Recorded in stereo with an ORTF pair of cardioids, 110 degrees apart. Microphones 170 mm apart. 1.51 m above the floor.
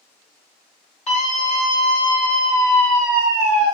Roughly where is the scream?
Ahead left.